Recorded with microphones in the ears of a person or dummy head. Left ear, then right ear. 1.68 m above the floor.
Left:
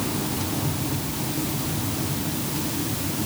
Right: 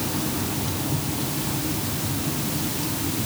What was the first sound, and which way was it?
Only background noise.